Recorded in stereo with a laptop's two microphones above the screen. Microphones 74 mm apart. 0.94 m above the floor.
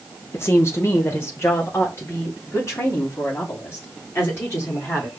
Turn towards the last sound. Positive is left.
turn(degrees=35)  # may be behind; listen again after turning